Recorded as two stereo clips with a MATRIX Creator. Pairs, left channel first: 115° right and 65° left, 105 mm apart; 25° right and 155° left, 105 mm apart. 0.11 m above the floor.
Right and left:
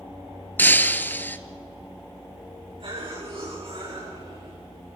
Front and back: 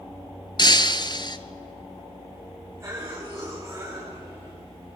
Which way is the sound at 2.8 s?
95° left.